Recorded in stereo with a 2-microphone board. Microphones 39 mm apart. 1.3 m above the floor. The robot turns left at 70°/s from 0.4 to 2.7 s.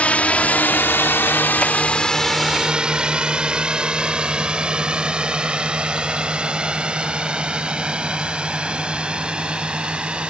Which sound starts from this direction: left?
A drone, at 0.0 s.